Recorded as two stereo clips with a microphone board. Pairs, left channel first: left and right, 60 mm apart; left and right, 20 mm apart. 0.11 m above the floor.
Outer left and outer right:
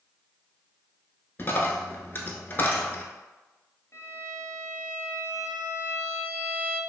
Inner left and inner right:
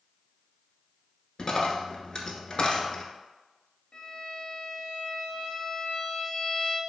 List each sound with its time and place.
1.4 s a dropped coin: 35° left (ahead or behind), 0.5 m
3.9 s a violin: 50° left (ahead or behind), 0.5 m